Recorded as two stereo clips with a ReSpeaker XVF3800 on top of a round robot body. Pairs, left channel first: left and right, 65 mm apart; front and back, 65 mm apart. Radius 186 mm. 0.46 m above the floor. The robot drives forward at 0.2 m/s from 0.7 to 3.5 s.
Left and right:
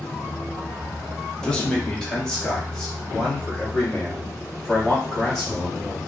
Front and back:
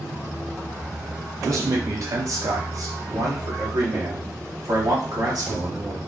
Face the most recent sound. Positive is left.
turn(degrees=170)